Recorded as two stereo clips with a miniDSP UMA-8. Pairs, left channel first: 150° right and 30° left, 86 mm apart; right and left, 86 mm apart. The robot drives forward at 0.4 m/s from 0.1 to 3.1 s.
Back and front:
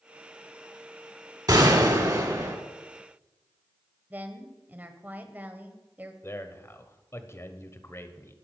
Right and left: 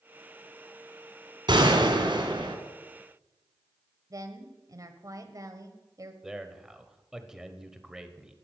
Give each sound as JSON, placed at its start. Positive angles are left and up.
{"t": 1.5, "sound": "a gunshot", "azimuth_deg": 70, "distance_m": 2.0}
{"t": 4.1, "sound": "a woman speaking", "azimuth_deg": 90, "distance_m": 1.2}
{"t": 6.2, "sound": "a man speaking", "azimuth_deg": 170, "distance_m": 1.1}